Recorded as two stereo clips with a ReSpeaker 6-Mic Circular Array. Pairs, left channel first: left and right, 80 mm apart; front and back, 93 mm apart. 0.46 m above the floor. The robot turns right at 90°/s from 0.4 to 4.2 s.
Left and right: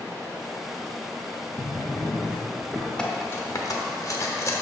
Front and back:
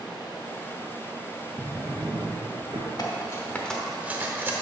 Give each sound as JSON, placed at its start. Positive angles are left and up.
{"t": 1.6, "sound": "a drawer", "azimuth_deg": 80, "distance_m": 1.3}
{"t": 3.0, "sound": "cutlery clinking", "azimuth_deg": 15, "distance_m": 0.8}